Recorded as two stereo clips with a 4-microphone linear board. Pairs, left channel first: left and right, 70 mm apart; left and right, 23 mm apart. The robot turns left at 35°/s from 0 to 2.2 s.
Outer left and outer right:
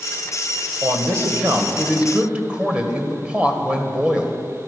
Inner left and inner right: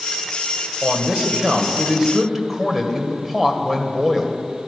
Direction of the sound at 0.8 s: 105° right.